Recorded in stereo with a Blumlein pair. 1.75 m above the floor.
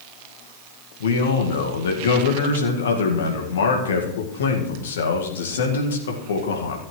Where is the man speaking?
65° left, 2 m.